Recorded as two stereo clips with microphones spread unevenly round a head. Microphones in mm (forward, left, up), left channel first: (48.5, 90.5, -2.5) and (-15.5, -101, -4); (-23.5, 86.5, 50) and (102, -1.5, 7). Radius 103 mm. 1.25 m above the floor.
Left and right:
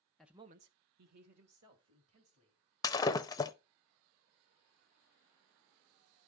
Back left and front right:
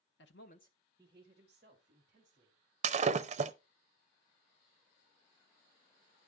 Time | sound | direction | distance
0.2 | a man speaking | 160° left | 0.8 m
2.8 | breaking glass | 10° left | 0.5 m